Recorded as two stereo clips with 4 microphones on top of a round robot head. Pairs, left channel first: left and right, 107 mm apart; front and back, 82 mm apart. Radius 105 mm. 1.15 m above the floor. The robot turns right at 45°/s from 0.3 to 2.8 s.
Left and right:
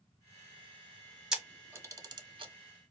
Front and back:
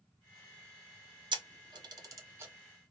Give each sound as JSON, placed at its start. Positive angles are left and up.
{"t": 1.3, "sound": "a camera shutter", "azimuth_deg": -175, "distance_m": 0.9}